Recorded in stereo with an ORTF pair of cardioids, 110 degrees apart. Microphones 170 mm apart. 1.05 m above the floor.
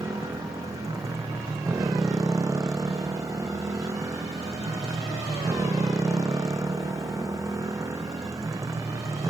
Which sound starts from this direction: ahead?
A motorcycle, at 0.0 s.